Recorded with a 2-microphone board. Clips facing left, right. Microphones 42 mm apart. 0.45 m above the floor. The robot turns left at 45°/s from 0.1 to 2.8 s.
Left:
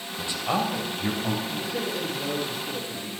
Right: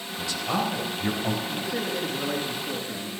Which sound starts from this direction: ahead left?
A man speaking, at 0.2 s.